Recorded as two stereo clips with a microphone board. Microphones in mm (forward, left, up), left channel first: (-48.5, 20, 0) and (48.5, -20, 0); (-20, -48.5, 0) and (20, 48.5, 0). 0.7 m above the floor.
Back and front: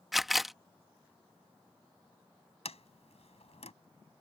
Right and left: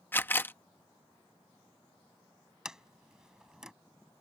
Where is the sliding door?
150° left.